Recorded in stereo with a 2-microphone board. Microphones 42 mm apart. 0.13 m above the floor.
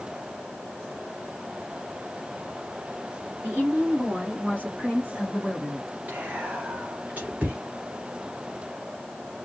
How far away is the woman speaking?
About 3 m.